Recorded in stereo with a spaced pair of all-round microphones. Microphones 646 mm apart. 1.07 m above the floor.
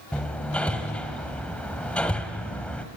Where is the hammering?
Centre (ahead or behind), 1.6 m.